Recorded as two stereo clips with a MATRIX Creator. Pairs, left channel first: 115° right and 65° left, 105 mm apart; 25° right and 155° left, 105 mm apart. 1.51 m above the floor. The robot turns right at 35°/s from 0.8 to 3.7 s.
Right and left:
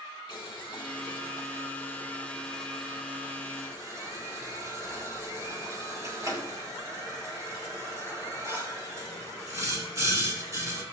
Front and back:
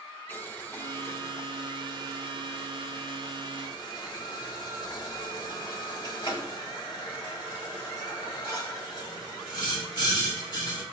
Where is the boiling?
90° right, 1.8 m; by 10.8 s 15° left, 1.8 m.